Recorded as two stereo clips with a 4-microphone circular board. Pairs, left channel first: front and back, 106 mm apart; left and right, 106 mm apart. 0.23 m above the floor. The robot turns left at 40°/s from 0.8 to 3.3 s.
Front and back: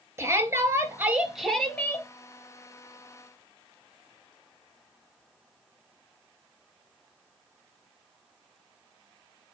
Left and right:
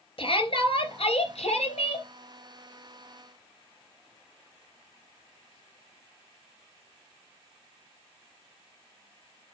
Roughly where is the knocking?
No knocking in this recording.